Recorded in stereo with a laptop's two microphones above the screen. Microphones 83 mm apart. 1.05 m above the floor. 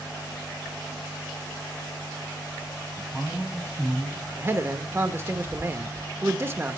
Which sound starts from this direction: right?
A man speaking, at 4.4 s.